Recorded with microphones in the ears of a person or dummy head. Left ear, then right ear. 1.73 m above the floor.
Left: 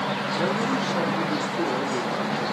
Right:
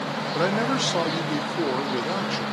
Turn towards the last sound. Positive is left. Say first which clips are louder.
# right 4 dB
turn(degrees=-70)  # may be behind; listen again after turning